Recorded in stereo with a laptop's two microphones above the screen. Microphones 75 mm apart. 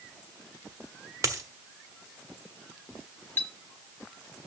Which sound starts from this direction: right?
A dropped coin, at 1.2 s.